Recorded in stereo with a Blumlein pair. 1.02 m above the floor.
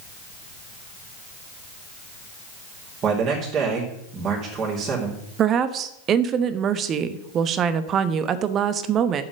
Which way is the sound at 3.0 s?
30° right.